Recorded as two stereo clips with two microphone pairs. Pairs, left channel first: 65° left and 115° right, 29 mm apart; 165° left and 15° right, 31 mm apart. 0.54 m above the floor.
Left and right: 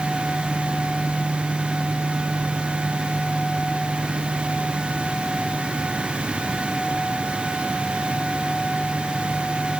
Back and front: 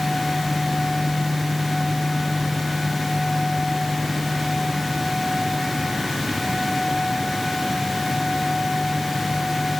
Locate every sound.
Only background noise.